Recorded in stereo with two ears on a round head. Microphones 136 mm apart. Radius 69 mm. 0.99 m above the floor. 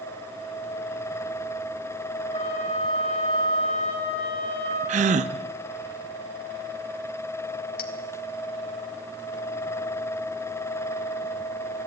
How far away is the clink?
About 1.8 m.